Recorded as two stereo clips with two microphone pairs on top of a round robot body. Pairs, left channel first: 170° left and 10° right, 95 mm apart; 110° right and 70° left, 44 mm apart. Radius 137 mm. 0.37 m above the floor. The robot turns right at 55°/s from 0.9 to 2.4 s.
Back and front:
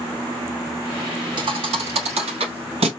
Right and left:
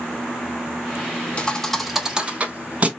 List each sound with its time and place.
1.4 s a thud: 50° right, 0.5 m; by 2.9 s 5° left, 0.5 m